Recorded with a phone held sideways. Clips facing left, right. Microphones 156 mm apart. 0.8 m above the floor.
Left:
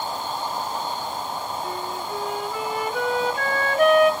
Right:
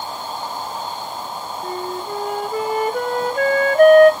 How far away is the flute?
About 1.0 m.